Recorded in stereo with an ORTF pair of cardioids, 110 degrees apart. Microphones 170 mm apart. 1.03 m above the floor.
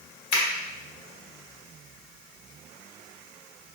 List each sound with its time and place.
0.3 s a finger snap: 65° left, 1.6 m